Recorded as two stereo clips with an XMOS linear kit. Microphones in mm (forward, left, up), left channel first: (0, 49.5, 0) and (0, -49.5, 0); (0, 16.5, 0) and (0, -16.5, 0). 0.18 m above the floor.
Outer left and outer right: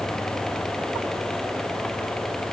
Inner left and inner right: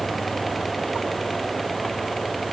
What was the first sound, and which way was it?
Only background noise.